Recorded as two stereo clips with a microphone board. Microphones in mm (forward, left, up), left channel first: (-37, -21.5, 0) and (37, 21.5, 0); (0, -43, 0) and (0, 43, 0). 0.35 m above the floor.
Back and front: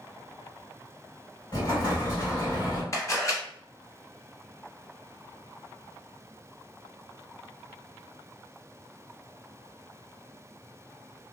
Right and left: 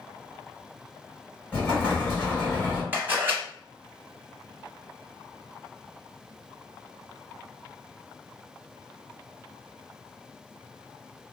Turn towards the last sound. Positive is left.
turn(degrees=155)